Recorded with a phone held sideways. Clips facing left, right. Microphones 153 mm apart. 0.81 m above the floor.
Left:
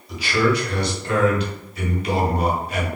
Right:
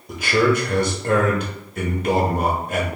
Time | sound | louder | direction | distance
0.1 | a man speaking | right 2 dB | 50° right (ahead or behind) | 0.8 m